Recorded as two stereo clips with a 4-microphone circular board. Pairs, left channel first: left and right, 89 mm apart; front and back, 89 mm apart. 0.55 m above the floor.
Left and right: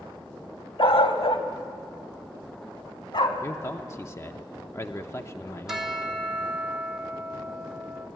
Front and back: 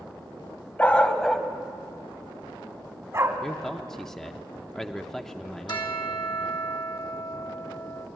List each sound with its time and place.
0.8 s a dog barking: 75° left, 1.2 m; by 3.3 s 125° left, 1.8 m
3.4 s a man speaking: 80° left, 0.7 m
5.7 s a bell: 5° right, 1.4 m